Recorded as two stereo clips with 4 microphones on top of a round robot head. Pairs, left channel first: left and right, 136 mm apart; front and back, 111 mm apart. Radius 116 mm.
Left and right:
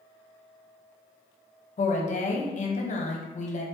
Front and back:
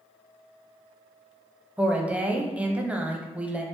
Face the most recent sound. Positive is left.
turn(degrees=105)